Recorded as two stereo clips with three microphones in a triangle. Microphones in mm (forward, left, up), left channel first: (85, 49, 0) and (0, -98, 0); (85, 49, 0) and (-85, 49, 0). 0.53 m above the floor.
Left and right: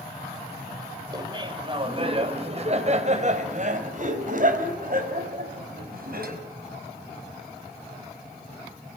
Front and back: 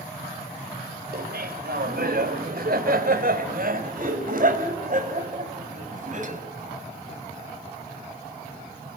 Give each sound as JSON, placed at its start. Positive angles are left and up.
{"t": 1.1, "sound": "laughter", "azimuth_deg": 180, "distance_m": 2.5}